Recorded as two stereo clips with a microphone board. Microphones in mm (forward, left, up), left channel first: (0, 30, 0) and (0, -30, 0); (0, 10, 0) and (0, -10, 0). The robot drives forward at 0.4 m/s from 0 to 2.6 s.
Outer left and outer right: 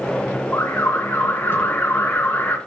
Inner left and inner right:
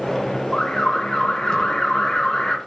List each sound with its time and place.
0.5 s an alarm: 45° left (ahead or behind), 3 m; by 2.6 s 35° left (ahead or behind), 3 m